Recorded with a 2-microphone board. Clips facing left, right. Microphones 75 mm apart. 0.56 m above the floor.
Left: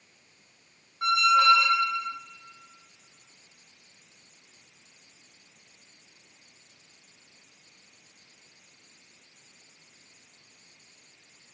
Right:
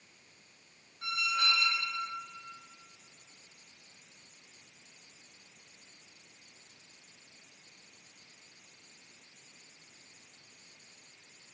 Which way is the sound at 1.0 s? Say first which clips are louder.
Left 13 dB; 65° left (ahead or behind).